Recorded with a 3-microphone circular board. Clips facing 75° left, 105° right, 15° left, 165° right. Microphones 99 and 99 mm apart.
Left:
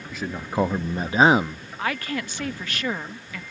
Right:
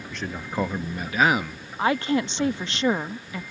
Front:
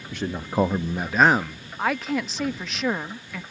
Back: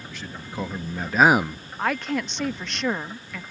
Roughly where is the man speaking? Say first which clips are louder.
Left 3 dB, front 10 dB; ahead.